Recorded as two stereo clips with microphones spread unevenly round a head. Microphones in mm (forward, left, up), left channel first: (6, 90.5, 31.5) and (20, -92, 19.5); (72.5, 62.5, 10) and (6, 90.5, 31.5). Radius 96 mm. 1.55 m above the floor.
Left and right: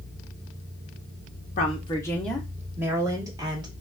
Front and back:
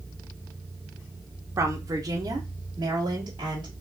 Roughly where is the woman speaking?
Behind left.